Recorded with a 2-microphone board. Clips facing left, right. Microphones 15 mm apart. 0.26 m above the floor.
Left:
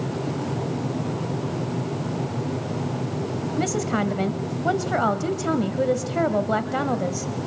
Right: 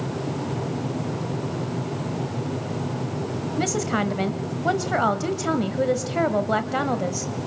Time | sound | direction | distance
3.6 | a woman speaking | 15° right (ahead or behind) | 1.2 m